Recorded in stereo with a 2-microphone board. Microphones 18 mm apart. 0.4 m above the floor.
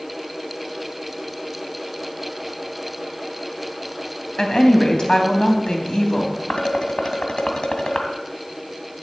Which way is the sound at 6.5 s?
55° left (ahead or behind).